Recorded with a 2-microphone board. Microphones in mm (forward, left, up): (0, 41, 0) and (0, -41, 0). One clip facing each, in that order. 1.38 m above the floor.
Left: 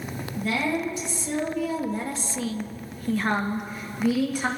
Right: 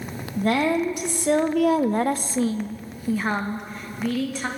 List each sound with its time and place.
0.4 s a woman speaking: 55° right (ahead or behind), 1.3 m; by 4.5 s 15° left (ahead or behind), 1.6 m